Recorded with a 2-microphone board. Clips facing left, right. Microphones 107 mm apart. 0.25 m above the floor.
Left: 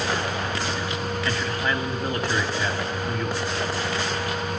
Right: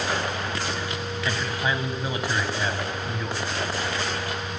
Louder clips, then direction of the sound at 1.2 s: Right 1 dB; 5° right (ahead or behind).